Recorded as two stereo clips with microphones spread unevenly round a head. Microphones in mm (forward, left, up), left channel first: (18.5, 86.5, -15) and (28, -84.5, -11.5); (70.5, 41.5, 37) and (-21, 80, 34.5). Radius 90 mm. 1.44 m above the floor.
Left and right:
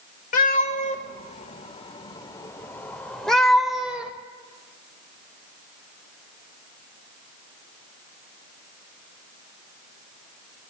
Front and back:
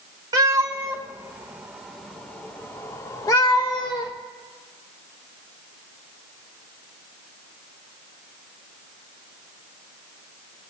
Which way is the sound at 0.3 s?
115° left.